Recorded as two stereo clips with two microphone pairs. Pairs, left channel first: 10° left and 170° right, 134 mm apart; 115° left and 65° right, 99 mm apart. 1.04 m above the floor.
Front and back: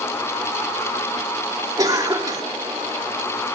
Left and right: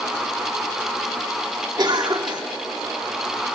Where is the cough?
105° right, 2.5 m.